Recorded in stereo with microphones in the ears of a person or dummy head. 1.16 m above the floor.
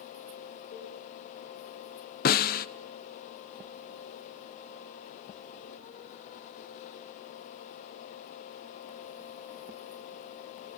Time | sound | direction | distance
0.7 | a cowbell | 45° left (ahead or behind) | 4 m
2.2 | a snare drum | 40° left (ahead or behind) | 0.5 m